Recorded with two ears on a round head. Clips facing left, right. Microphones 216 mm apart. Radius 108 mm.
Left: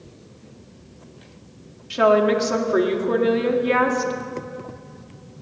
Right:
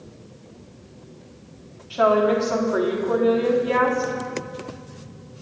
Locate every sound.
1.9 s a woman speaking: 35° left (ahead or behind), 1.5 m